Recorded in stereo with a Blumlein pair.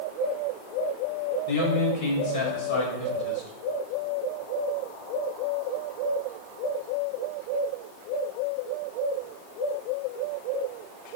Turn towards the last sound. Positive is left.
turn(degrees=55)